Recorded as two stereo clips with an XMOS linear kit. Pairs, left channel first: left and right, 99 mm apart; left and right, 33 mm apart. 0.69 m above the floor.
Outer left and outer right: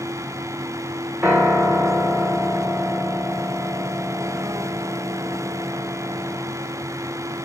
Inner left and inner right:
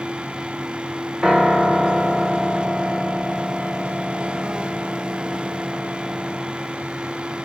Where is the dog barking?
No dog barking in this recording.